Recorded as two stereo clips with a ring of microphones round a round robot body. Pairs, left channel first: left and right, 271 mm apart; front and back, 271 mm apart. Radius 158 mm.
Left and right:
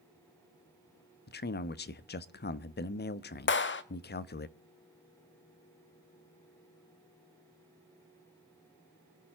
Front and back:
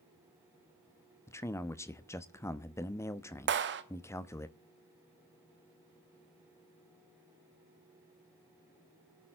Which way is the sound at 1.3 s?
75° left.